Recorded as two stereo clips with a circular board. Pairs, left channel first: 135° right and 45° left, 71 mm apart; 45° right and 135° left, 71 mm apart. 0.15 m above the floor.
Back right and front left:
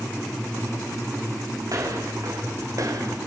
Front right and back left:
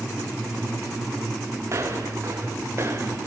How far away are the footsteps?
About 6 m.